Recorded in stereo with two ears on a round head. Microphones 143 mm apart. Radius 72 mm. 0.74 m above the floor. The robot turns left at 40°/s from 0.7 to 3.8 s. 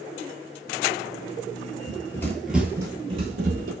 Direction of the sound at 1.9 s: 25° left (ahead or behind).